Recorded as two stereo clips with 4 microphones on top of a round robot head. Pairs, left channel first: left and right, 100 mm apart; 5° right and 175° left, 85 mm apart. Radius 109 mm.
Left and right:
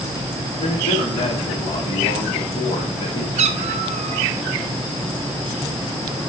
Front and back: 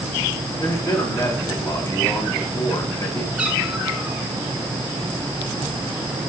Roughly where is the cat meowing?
Right.